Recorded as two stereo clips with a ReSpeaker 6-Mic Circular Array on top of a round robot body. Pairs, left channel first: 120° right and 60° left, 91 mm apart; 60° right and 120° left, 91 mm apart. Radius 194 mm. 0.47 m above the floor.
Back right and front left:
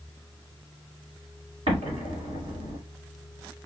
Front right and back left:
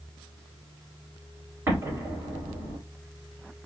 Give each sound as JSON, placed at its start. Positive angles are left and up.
{"t": 1.7, "sound": "an explosion", "azimuth_deg": 55, "distance_m": 1.4}